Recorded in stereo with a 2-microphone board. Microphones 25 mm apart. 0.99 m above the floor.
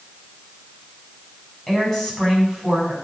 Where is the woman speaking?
15° left (ahead or behind), 7.5 m.